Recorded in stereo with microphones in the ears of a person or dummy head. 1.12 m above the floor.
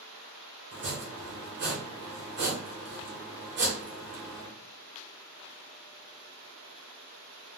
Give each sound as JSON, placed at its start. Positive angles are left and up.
{"t": 0.7, "sound": "chopping", "side_deg": -45, "distance_m": 0.9}